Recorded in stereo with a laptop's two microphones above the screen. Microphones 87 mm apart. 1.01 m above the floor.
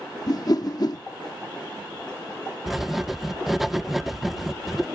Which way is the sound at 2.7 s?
Centre (ahead or behind).